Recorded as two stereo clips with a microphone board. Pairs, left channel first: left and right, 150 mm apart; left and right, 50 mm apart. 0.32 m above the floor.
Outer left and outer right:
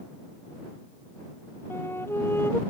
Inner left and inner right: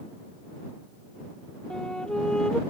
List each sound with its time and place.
1.7 s a flute: 15° left (ahead or behind)